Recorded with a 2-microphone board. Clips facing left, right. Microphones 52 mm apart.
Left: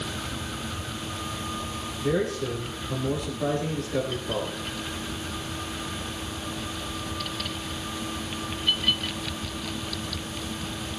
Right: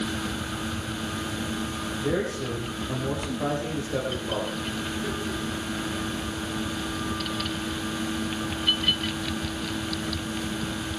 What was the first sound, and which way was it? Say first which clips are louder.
A man speaking: left 2 dB; 25° right (ahead or behind).